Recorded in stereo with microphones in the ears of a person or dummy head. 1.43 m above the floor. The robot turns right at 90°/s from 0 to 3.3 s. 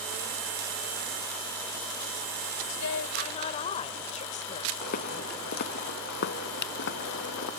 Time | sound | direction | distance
2.7 | a woman speaking | 90° left | ?
4.8 | footsteps | 50° left (ahead or behind) | ?